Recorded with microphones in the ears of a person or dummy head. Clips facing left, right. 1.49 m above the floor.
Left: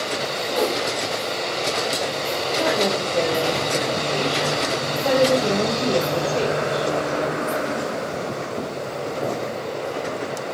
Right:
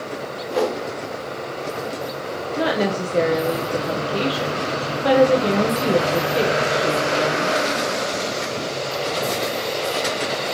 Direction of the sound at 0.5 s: 35° right (ahead or behind).